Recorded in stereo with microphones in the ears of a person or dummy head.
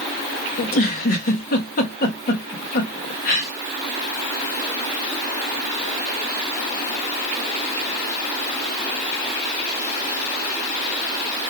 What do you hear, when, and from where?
0.6 s a giggle: 45° left (ahead or behind), 0.6 m